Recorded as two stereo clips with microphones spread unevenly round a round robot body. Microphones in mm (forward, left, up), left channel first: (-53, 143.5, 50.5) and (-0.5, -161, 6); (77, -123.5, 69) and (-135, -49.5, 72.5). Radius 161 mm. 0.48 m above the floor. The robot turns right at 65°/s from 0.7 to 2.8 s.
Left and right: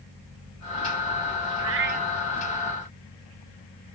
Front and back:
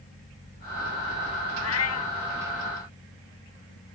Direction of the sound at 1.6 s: 35° right.